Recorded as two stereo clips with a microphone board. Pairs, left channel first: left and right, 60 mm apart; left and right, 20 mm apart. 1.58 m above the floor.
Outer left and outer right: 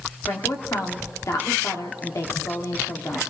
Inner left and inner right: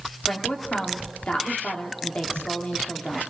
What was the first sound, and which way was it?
A woman speaking, 65° left (ahead or behind).